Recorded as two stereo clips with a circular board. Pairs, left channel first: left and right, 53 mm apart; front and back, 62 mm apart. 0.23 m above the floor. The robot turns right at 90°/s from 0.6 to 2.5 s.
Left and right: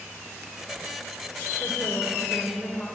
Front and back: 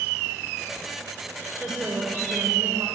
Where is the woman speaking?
90° left, 3.5 m; by 2.9 s 170° left, 3.5 m.